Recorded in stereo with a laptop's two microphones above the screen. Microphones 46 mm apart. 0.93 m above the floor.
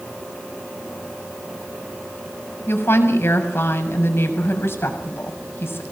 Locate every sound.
2.7 s a woman speaking: 60° left (ahead or behind), 7 m